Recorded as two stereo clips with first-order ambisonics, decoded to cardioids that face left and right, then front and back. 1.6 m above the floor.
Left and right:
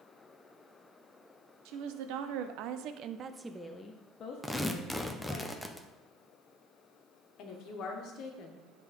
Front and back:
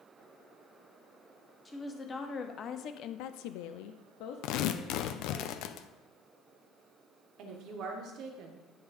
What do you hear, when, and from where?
1.6 s a woman speaking: 80° right, 1.1 m; by 5.4 s 55° left, 1.3 m
4.4 s tearing paper: 5° left, 0.5 m
7.4 s a woman speaking: 135° left, 1.4 m